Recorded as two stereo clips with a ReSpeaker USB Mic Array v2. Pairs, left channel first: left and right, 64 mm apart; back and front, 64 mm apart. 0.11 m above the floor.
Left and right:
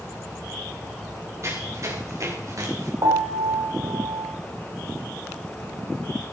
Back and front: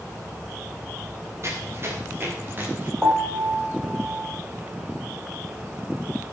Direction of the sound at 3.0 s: 85° right.